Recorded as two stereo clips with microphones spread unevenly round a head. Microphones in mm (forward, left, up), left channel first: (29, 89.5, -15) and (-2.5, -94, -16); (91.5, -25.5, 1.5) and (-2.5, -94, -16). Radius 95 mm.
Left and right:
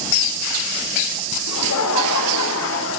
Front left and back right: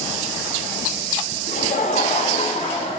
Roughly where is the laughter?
Left.